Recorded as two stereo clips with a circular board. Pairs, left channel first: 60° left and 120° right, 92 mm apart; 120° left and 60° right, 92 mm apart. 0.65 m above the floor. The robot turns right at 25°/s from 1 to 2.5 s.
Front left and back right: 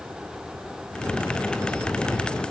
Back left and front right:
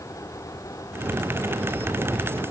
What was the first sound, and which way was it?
Only background noise.